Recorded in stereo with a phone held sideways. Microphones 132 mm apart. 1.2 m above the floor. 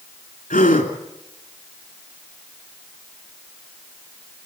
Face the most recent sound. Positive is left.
turn(degrees=80)